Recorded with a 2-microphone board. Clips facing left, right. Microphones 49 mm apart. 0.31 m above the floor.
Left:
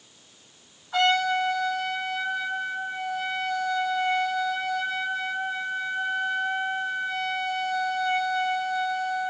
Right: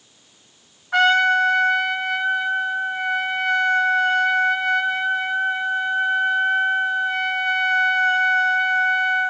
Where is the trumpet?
60° right (ahead or behind), 0.9 m.